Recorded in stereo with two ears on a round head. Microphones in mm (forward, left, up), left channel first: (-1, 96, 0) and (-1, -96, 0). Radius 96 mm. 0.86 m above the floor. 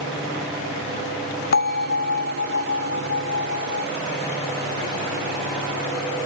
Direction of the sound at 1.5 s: 45° left (ahead or behind).